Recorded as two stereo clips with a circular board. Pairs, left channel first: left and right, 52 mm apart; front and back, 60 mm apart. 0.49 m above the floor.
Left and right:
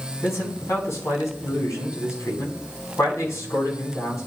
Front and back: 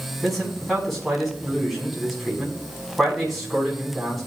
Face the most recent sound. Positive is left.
turn(degrees=90)